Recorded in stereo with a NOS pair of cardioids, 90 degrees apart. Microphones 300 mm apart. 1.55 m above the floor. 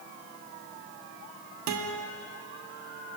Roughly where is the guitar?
Ahead right.